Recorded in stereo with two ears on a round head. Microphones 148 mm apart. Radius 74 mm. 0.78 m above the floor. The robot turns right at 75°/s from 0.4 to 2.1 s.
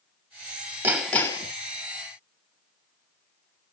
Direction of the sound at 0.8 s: 15° right.